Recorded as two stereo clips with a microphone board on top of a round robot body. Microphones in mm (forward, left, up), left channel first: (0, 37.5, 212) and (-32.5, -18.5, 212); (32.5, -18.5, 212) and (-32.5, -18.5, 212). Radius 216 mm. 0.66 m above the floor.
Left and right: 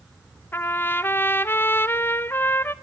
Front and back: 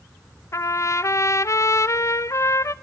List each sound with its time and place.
0.5 s a trumpet: 15° left, 0.9 m